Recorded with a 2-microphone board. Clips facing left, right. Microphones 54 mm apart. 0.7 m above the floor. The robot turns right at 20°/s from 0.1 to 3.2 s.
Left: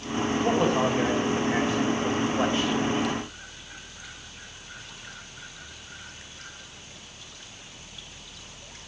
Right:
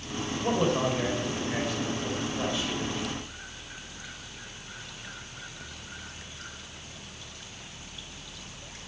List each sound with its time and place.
0.4 s a man speaking: straight ahead, 3.5 m; by 3.1 s 55° left, 3.5 m